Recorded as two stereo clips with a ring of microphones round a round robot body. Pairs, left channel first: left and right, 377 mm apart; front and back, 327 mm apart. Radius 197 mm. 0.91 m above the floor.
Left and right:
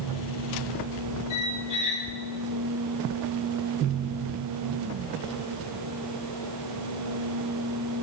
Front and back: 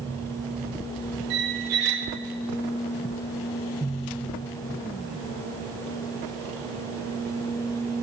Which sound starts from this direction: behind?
A squeak, at 1.3 s.